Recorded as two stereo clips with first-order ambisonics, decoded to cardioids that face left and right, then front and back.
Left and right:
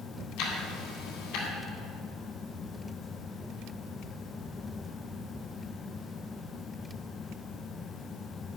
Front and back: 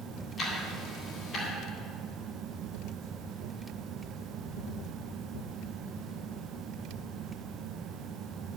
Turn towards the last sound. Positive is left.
turn(degrees=60)